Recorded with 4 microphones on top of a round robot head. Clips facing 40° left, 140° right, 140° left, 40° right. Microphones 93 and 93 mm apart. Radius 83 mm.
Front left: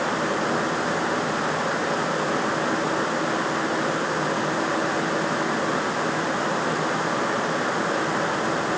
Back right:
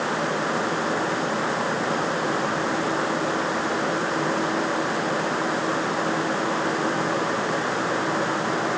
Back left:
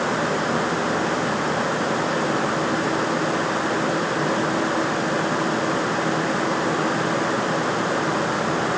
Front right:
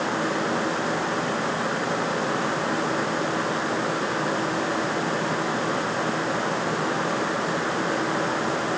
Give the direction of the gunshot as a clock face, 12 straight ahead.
No gunshot in this recording.